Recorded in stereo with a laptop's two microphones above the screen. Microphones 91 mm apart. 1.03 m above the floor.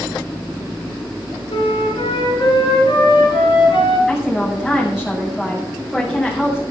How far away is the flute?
About 6 m.